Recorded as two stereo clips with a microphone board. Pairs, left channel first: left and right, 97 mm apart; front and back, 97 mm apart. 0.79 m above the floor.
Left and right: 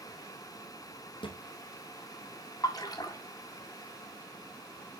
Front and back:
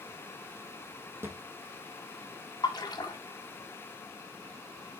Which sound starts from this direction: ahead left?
A splash, at 2.6 s.